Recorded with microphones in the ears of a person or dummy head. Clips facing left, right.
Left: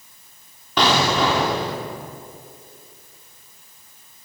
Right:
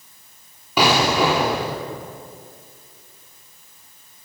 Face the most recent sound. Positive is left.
turn(degrees=-10)  # may be behind; listen again after turning